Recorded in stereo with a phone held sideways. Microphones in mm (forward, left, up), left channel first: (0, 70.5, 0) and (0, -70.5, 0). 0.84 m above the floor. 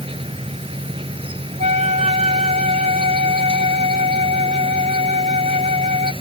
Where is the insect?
40° right (ahead or behind).